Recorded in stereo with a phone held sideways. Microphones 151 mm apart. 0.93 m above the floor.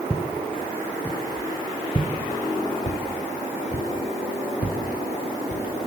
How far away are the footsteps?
About 3.5 m.